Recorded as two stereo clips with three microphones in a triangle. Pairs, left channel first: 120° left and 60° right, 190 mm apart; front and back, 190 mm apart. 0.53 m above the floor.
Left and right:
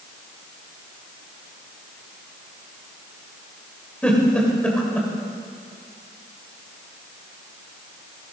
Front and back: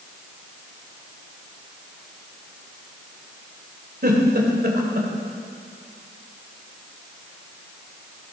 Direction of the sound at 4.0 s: 155° right.